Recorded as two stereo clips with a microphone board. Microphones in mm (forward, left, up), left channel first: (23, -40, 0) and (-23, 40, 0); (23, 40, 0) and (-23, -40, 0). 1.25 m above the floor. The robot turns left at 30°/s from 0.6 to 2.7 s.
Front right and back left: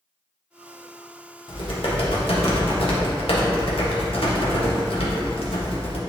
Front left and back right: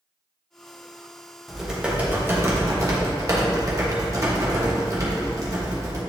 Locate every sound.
1.5 s typing on a keyboard: 30° right, 1.3 m; by 6.0 s 70° right, 1.3 m